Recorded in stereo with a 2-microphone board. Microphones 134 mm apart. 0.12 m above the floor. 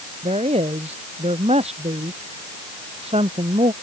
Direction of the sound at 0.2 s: 50° right (ahead or behind).